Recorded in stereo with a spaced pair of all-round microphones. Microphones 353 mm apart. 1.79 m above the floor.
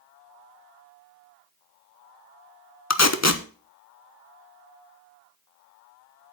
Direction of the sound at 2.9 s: 45° left (ahead or behind).